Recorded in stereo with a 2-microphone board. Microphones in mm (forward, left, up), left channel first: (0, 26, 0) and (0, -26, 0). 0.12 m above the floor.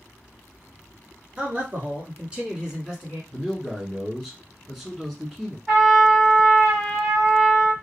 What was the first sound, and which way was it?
A man speaking, 35° right (ahead or behind).